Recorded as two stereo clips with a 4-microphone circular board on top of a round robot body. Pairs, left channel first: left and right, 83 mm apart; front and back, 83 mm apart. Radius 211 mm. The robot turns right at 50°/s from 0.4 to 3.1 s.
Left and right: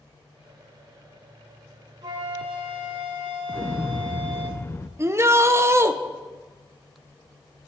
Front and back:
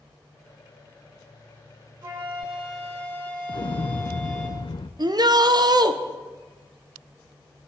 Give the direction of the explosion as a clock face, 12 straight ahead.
11 o'clock.